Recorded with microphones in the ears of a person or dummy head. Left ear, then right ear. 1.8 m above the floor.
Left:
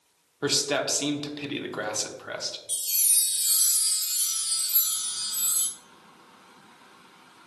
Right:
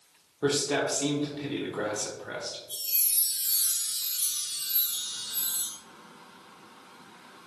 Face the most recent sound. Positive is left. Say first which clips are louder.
# left 6 dB
turn(degrees=60)  # may be behind; listen again after turning